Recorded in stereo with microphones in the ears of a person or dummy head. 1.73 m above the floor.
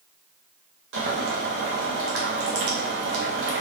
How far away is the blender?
No blender in this recording.